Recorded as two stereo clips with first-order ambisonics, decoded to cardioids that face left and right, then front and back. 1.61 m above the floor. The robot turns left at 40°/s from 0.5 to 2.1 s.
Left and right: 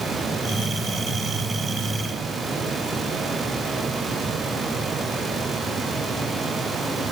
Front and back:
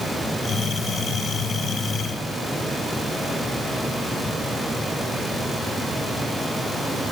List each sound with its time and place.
Only background noise.